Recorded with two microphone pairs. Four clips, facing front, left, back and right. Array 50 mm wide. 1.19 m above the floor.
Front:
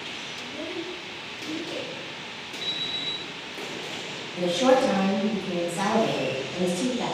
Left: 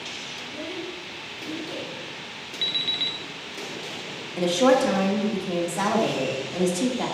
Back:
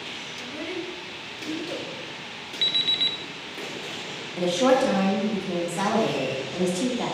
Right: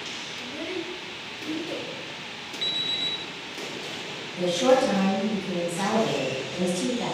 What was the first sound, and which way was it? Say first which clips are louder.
A child speaking: right 2 dB, back 2 dB; 160° right.